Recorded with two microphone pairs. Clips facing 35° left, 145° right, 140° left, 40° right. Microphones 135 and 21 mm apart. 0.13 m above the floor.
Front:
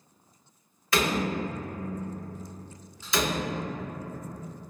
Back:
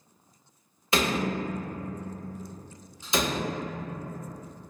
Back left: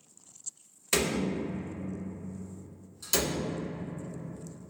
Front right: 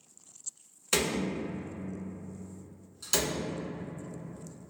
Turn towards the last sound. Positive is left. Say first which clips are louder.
# even, back left 1 dB
turn(degrees=-110)